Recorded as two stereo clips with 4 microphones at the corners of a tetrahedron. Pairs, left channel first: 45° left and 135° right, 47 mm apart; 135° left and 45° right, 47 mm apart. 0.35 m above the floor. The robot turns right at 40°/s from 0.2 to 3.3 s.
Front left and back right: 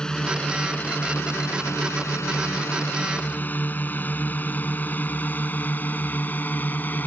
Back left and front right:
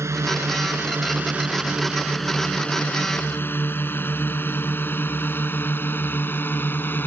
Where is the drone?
30° right; by 7.1 s 90° left.